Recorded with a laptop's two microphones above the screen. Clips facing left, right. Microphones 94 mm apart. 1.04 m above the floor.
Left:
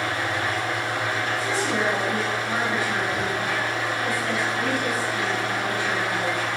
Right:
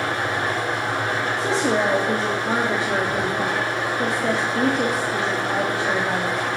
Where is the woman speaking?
80° right, 1.7 m.